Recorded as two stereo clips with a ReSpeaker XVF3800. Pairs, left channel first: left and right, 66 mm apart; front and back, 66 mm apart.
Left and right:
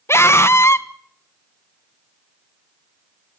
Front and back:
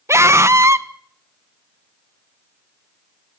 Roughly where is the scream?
Behind left.